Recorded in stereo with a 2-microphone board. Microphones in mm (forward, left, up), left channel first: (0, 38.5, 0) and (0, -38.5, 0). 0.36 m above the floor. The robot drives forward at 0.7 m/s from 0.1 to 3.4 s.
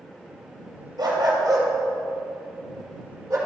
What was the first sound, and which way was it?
A dog barking, 60° right (ahead or behind).